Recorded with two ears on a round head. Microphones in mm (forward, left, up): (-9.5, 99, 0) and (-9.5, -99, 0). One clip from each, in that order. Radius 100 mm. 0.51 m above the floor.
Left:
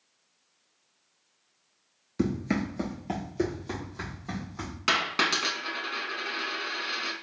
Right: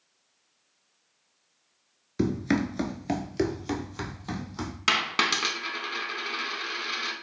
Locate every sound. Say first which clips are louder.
2.2 s running footsteps: right 3 dB; 10° right (ahead or behind), 0.5 m; by 4.8 s 50° right (ahead or behind), 1.5 m
4.9 s a dropped coin: right 1 dB; 20° right (ahead or behind), 0.6 m